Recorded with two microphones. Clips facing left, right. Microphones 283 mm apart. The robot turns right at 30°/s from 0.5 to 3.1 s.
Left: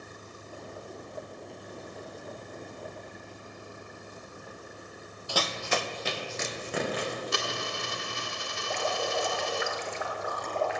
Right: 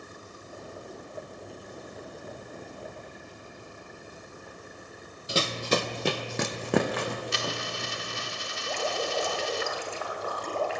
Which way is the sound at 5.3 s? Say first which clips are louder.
Right 4 dB; 25° right (ahead or behind).